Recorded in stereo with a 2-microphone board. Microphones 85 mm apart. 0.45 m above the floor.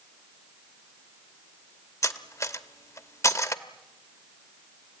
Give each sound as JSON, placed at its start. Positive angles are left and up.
{"t": 2.0, "sound": "cutlery clinking", "side_deg": 35, "distance_m": 1.0}